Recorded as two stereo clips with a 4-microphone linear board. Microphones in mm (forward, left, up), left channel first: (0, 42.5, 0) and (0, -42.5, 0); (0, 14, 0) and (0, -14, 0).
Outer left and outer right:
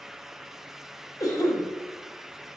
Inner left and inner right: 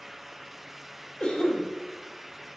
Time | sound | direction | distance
1.2 | a cough | 45° left (ahead or behind) | 1.2 m